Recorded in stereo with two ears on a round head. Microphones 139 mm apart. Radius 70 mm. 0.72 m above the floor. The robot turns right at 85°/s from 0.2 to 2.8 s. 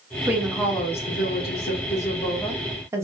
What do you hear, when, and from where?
0.3 s a woman speaking: 15° right, 1.2 m; by 3.0 s 160° right, 1.2 m